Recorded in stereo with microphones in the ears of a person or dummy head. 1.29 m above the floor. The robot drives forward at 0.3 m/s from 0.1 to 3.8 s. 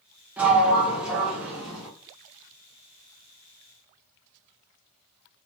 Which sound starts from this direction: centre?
A sliding door, at 0.4 s.